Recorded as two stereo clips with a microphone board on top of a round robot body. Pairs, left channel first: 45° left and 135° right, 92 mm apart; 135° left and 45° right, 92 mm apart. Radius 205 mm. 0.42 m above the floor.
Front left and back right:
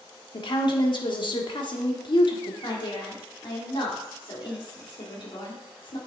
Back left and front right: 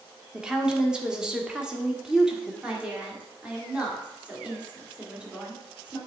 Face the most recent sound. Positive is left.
turn(degrees=30)